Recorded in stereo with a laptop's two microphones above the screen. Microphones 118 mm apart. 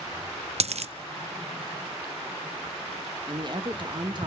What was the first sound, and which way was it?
A dropped coin, 65° right (ahead or behind).